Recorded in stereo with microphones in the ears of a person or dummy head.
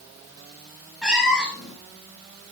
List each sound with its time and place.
1.0 s a cat meowing: 5° right (ahead or behind), 1.3 m